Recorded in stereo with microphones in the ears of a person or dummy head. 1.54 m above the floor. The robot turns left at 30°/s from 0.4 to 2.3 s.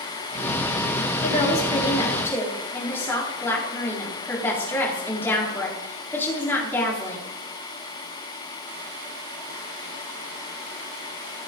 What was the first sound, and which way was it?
A woman speaking, 50° left.